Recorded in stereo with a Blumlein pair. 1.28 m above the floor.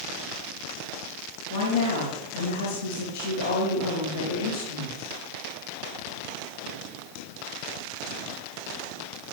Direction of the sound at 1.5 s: 65° left.